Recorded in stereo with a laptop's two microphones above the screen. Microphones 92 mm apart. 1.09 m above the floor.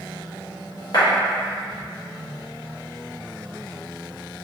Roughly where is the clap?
Left.